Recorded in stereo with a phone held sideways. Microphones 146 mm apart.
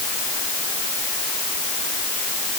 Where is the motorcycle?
No motorcycle in this recording.